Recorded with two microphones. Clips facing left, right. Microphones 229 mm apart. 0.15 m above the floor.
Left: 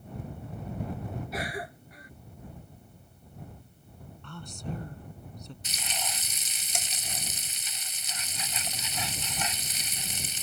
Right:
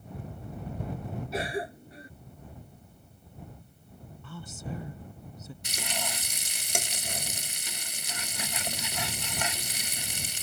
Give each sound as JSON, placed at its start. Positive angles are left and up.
{"t": 1.3, "sound": "a cough", "side_deg": -30}
{"t": 4.2, "sound": "a woman speaking", "side_deg": -5}
{"t": 5.6, "sound": "frying", "side_deg": -65}